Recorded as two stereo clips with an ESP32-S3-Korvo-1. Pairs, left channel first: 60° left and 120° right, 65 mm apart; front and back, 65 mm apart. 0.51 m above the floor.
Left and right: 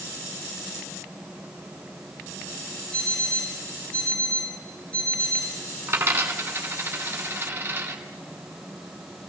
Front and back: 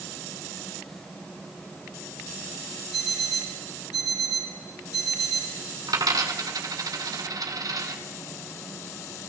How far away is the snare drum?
I don't hear a snare drum.